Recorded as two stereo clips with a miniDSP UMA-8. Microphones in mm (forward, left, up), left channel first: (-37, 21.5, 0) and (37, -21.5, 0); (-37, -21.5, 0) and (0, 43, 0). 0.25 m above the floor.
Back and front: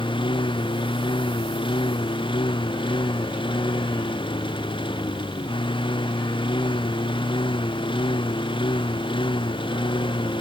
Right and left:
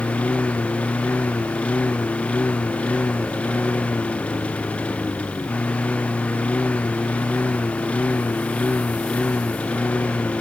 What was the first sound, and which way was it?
A lawn mower, 165° left.